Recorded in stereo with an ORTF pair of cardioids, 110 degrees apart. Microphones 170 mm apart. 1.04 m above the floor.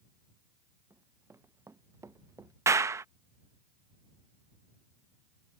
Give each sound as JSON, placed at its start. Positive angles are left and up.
{"t": 0.9, "sound": "running footsteps", "azimuth_deg": -15}
{"t": 2.7, "sound": "a clap", "azimuth_deg": -15}